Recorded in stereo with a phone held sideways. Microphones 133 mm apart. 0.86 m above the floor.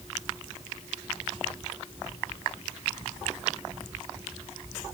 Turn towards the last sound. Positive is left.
No sound to turn to.